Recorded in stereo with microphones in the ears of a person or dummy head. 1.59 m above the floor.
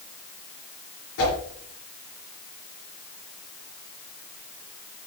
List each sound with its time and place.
1.2 s a whoosh: 70° left (ahead or behind), 4.5 m